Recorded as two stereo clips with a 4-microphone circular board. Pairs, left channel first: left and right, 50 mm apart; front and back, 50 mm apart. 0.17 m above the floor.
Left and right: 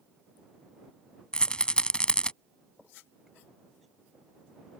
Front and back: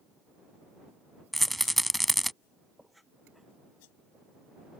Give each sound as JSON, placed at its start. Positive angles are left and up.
{"t": 1.3, "sound": "a rattle", "azimuth_deg": 85}